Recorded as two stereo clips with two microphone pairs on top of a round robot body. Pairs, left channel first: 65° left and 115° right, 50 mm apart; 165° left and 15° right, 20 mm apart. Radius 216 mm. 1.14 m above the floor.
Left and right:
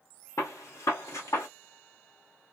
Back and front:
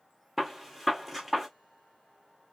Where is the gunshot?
65° left, 1.3 m.